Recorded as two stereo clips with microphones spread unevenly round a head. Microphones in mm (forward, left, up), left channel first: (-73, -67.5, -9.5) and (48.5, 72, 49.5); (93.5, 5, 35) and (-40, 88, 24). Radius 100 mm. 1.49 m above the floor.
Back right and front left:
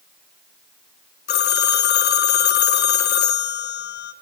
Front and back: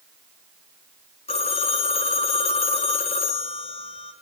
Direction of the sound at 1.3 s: 85° right.